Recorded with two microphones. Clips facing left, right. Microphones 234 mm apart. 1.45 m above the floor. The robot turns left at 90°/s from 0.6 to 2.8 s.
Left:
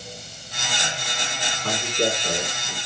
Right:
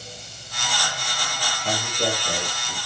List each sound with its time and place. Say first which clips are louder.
1.6 s a man speaking: left 2 dB; 115° left, 4.5 m; by 2.8 s 10° left, 4.5 m